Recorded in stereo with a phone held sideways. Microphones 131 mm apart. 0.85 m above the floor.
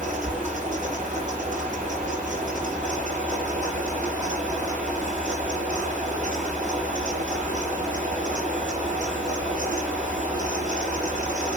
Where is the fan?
70° right (ahead or behind), 6 m.